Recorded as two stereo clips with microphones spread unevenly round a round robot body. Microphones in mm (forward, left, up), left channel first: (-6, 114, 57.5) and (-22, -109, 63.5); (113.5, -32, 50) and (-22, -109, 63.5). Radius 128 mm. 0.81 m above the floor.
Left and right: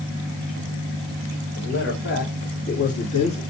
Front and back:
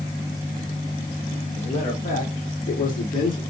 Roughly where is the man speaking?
Ahead left.